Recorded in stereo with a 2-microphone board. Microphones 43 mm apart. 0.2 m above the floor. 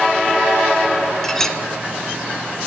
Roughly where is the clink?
Centre.